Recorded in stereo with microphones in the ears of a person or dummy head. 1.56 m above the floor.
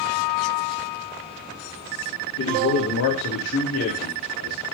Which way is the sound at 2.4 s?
75° left (ahead or behind).